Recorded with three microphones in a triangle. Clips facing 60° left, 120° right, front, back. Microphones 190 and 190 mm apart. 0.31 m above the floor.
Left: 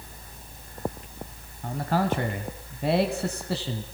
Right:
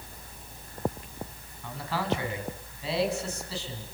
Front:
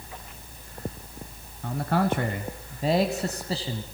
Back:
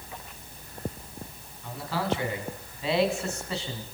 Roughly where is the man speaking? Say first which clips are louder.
Left 5 dB, front 5 dB; ahead.